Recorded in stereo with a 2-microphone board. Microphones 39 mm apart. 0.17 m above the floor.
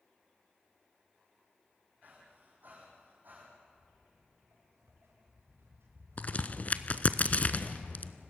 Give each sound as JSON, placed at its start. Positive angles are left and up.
{"t": 2.0, "sound": "breathing", "side_deg": -50, "distance_m": 5.5}
{"t": 3.7, "sound": "footsteps", "side_deg": -80, "distance_m": 5.0}
{"t": 6.2, "sound": "a crack", "side_deg": 40, "distance_m": 0.6}